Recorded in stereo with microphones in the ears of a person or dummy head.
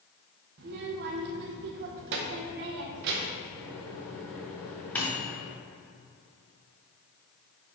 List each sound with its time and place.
0.6 s a child speaking: 60° right (ahead or behind), 1.1 m
3.5 s a microwave: 5° left (ahead or behind), 1.3 m